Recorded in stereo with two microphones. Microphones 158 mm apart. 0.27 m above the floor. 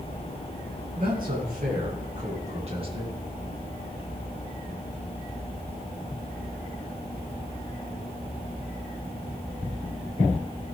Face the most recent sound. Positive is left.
turn(degrees=-30)  # may be behind; listen again after turning